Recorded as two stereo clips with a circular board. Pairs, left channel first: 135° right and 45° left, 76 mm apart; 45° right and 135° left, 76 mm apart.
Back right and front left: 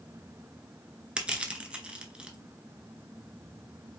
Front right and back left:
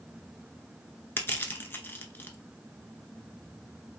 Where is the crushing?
20° right, 0.7 m.